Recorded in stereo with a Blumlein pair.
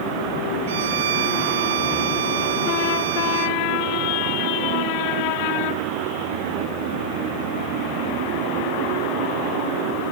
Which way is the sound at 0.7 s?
60° right.